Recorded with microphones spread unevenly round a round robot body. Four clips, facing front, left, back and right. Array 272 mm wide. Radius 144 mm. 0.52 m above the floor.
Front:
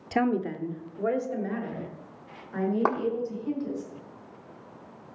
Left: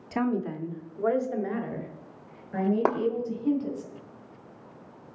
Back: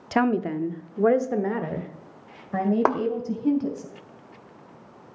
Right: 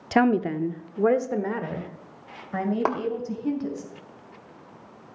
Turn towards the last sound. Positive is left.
turn(degrees=135)